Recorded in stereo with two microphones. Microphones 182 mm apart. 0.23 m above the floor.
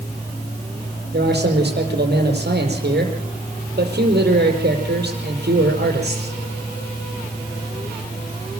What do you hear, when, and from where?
1.1 s a man speaking: 65° right (ahead or behind), 6 m